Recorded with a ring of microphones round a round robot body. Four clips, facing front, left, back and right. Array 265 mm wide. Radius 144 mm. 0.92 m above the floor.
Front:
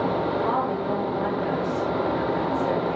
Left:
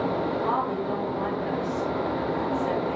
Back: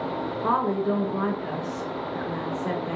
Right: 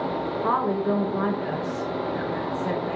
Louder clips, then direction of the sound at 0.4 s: Right 3 dB, back 1 dB; 135° right.